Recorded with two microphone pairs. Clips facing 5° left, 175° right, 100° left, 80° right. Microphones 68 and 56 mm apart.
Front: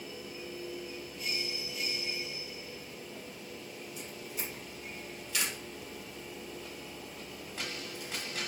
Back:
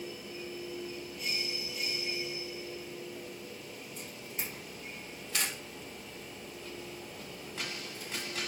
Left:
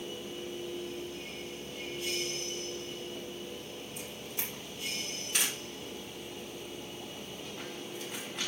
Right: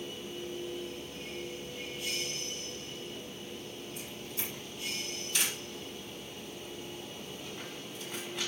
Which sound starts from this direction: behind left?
A camera shutter, at 4.0 s.